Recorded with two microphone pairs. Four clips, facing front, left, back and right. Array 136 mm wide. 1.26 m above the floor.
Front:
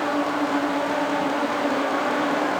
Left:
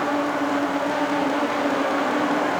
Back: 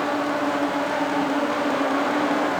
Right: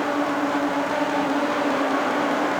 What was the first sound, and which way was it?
Only background noise.